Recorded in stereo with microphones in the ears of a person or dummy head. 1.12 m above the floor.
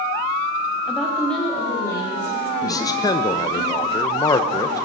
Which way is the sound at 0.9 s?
5° right (ahead or behind).